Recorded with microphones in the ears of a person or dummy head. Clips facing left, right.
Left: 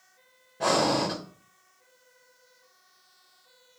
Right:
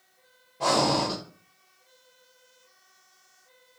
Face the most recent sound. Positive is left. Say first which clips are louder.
# even
turn(degrees=15)  # may be behind; listen again after turning